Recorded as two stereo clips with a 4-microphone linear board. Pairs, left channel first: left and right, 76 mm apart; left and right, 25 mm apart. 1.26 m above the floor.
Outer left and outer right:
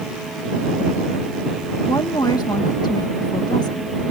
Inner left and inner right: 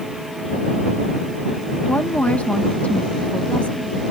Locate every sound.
1.9 s a woman speaking: 65° left (ahead or behind)